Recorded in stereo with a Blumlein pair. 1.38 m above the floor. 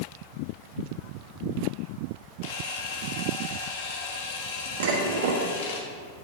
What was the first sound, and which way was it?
A camera shutter, 55° left.